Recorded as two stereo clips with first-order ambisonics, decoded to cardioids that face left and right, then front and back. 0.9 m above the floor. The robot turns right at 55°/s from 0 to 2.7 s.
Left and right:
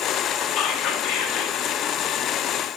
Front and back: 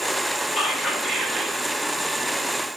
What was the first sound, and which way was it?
Whispering, 60° left.